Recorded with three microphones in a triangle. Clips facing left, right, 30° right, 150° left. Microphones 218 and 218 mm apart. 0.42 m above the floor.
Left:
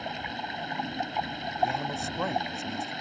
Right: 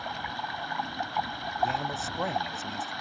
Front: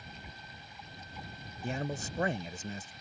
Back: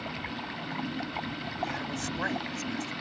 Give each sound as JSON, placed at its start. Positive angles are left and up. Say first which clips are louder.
{"t": 0.0, "sound": "running water", "louder": "left 2 dB, back 14 dB", "azimuth_deg": 160}
{"t": 1.6, "sound": "a man speaking", "louder": "left 1 dB, even", "azimuth_deg": 0}